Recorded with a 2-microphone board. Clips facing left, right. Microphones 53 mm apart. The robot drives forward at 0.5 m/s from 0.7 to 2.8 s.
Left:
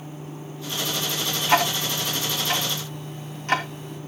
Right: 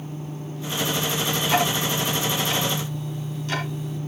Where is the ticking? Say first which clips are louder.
Left 3 dB; 35° left (ahead or behind), 3.5 m; by 4.0 s 45° left (ahead or behind), 3 m.